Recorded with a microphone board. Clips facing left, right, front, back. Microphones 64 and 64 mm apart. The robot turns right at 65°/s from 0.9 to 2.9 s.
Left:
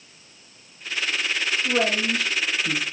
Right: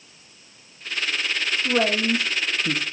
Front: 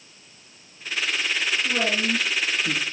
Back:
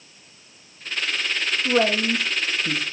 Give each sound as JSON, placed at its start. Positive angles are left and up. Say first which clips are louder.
{"t": 1.6, "sound": "a man speaking", "louder": "right 2 dB, back 7 dB", "azimuth_deg": -165, "distance_m": 0.8}